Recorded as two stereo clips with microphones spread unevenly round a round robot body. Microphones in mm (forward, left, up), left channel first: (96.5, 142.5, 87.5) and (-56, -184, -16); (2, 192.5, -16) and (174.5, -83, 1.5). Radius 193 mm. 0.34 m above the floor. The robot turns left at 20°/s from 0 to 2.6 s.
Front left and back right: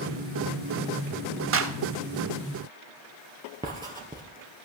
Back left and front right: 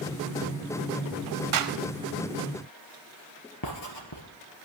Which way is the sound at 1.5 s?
80° right.